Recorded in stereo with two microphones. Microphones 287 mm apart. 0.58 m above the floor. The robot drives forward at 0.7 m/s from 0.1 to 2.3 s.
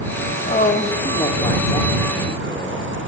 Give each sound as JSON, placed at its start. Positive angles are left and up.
{"t": 0.5, "sound": "a woman speaking", "side_deg": 30, "distance_m": 0.7}